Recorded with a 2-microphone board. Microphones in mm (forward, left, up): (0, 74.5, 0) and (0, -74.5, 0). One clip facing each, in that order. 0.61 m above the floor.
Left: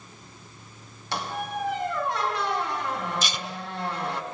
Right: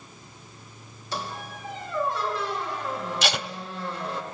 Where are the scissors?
No scissors in this recording.